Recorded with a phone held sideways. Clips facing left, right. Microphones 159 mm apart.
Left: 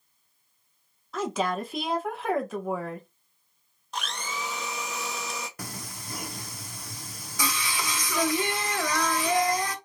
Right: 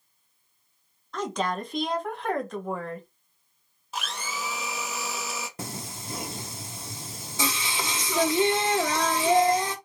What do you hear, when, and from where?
1.1 s a woman speaking: 5° left (ahead or behind), 0.9 m
3.9 s a blender: 5° right (ahead or behind), 0.7 m
5.6 s singing: 25° right (ahead or behind), 0.6 m